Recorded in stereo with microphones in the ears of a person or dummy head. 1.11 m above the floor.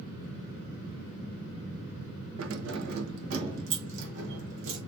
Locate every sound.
2.4 s keys jangling: 80° right, 0.8 m; by 4.8 s 75° right (ahead or behind), 2 m